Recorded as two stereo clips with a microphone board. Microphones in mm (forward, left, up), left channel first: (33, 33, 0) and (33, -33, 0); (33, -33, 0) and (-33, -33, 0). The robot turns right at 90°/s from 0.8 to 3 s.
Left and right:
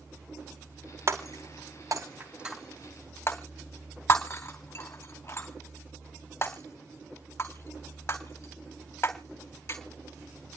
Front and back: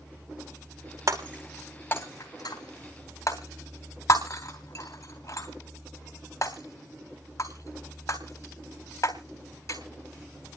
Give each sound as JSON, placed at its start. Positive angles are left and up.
{"t": 1.1, "sound": "breaking glass", "azimuth_deg": -135, "distance_m": 2.5}